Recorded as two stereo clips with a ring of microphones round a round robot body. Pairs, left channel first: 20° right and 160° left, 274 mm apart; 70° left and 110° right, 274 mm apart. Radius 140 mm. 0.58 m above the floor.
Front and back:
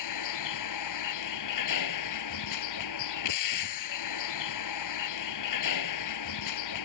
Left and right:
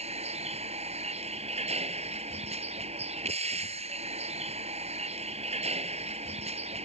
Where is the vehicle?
45° right.